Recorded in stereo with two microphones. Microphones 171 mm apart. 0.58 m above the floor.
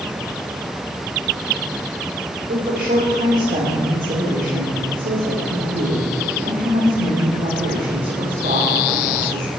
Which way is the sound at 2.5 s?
65° right (ahead or behind).